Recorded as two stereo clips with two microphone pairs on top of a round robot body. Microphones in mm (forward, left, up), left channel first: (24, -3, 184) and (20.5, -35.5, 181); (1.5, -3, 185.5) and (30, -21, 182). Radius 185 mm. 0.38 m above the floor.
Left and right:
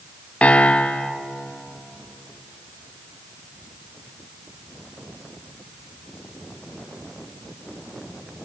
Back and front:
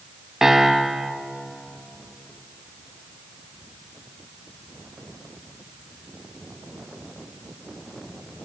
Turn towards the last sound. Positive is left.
turn(degrees=40)